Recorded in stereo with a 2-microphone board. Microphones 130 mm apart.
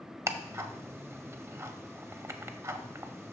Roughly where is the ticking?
Right.